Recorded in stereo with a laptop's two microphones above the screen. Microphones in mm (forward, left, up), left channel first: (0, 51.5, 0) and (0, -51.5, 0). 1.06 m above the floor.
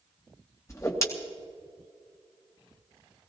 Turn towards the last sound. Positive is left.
turn(degrees=30)  # may be behind; listen again after turning